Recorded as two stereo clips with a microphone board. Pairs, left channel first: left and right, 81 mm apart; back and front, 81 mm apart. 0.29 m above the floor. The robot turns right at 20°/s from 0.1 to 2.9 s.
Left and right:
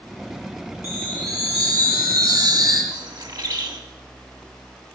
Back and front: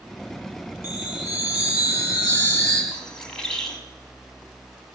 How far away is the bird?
About 1.7 m.